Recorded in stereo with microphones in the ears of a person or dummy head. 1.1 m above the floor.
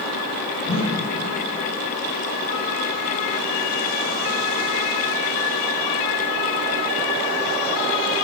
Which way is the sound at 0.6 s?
35° left (ahead or behind).